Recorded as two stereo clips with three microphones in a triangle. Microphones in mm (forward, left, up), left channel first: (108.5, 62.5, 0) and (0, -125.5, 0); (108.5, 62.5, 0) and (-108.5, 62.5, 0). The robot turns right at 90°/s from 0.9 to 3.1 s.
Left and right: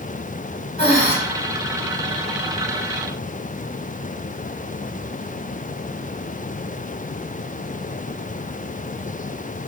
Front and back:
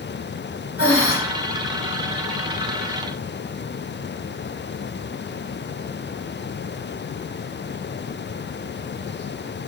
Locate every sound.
0.8 s breathing: straight ahead, 0.8 m; by 1.1 s 20° left, 0.8 m